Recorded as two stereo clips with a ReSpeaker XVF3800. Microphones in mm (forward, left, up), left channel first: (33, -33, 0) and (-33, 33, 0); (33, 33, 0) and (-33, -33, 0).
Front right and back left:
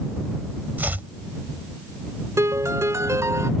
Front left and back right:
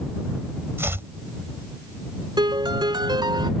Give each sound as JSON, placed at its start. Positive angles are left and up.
{"t": 0.8, "sound": "chopping", "azimuth_deg": -170}
{"t": 2.4, "sound": "a piano", "azimuth_deg": -170}